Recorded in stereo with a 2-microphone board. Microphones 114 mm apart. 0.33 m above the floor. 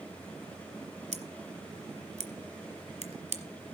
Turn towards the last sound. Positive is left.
turn(degrees=-70)  # may be behind; listen again after turning